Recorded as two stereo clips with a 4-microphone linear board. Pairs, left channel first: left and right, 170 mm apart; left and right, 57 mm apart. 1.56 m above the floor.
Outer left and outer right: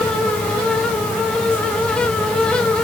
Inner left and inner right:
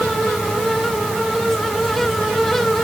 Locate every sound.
Only background noise.